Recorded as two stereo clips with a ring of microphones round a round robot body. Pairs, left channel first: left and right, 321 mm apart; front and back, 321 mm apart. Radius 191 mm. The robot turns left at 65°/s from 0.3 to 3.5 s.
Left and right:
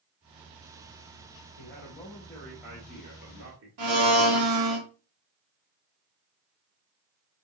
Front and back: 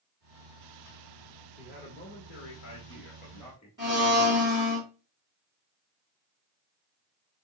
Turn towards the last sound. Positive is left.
turn(degrees=-100)